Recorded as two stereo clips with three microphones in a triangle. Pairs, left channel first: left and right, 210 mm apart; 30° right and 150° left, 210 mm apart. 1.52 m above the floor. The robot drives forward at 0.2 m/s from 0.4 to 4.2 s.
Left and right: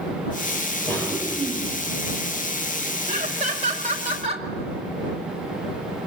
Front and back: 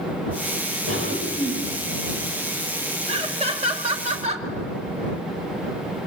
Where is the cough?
170° left, 7.5 m.